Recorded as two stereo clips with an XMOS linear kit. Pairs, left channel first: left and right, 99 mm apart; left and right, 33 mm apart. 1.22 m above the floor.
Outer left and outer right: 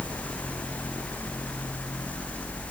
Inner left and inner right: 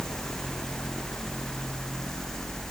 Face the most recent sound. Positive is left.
No sound to turn to.